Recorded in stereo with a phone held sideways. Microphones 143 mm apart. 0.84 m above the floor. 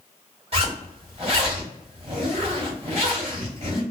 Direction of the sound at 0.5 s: 45° right (ahead or behind).